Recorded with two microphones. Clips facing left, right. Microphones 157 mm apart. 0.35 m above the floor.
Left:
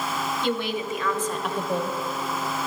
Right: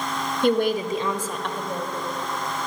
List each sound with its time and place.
0.4 s a woman speaking: 55° right (ahead or behind), 1.3 m; by 1.9 s 30° left (ahead or behind), 1.4 m